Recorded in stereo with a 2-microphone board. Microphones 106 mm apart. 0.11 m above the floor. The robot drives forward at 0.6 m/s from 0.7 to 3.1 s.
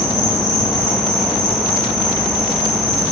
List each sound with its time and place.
0.0 s an insect: 20° right (ahead or behind), 4.5 m; by 3.1 s 15° right (ahead or behind), 5.5 m